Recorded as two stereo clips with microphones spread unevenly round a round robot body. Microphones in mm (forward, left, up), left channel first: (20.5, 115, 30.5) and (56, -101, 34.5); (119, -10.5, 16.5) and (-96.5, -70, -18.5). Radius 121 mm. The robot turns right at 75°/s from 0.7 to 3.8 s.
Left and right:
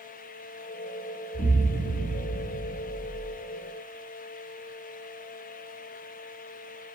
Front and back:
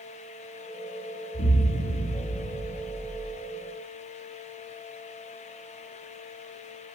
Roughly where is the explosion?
Ahead left.